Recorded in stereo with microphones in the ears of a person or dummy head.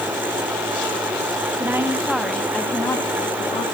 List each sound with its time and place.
1.6 s a woman speaking: 10° right (ahead or behind), 1.5 m; by 3.6 s 30° left (ahead or behind), 1.6 m